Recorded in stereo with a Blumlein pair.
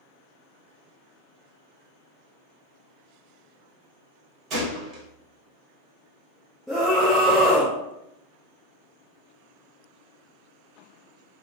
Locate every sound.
4.5 s a gunshot: 35° right, 1.2 m
6.7 s a scream: 5° left, 0.6 m